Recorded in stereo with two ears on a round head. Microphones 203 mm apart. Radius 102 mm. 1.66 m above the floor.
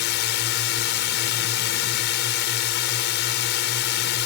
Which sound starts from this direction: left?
A drone, at 0.0 s.